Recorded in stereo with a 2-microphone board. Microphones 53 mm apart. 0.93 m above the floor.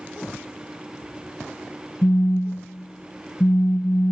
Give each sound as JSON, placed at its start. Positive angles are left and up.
{"t": 2.0, "sound": "a phone buzzing", "side_deg": 40, "distance_m": 0.6}